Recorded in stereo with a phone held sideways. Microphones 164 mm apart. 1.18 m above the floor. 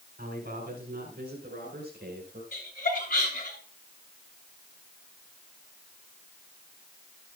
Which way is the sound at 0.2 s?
60° right (ahead or behind).